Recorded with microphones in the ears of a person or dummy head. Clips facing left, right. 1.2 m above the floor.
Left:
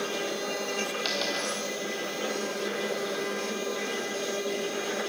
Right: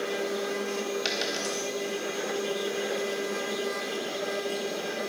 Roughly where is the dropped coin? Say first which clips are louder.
Even; right.